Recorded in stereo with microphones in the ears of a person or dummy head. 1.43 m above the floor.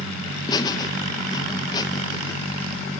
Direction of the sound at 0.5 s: 25° left (ahead or behind).